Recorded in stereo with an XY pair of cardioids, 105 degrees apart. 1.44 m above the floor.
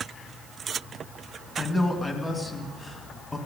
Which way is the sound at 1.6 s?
15° left.